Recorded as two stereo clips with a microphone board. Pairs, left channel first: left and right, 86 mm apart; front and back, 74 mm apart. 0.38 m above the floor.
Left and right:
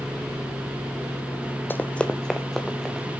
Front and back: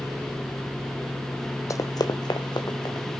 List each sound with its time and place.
1.7 s running footsteps: 30° left, 0.6 m; by 3.1 s straight ahead, 1.8 m